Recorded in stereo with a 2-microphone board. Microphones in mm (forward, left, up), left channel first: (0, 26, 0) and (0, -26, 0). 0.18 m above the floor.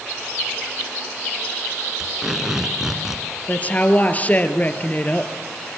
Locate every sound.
2.0 s tape being pulled: 10° right (ahead or behind), 2.5 m
3.5 s a woman speaking: 30° left (ahead or behind), 3 m